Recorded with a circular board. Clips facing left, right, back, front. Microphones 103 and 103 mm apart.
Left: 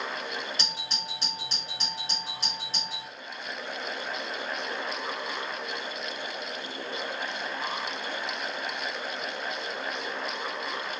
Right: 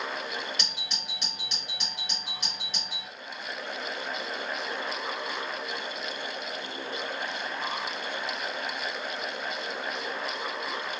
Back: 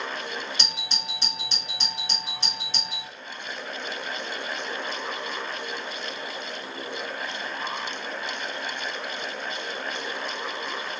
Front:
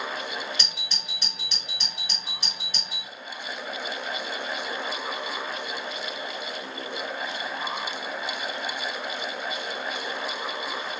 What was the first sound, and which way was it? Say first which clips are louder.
A doorbell: left 3 dB, back 3 dB; 130° left.